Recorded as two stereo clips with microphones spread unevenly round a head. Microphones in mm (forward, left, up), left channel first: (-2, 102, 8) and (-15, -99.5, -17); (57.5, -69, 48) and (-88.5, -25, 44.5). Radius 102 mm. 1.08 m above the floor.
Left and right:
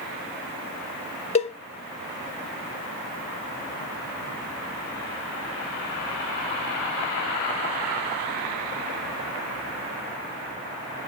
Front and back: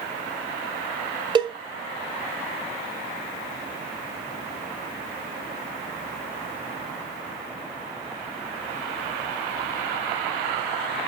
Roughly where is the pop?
I don't hear a pop.